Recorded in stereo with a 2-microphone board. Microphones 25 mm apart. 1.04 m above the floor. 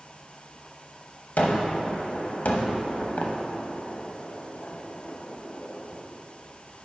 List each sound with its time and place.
1.4 s a gunshot: 75° left (ahead or behind), 0.9 m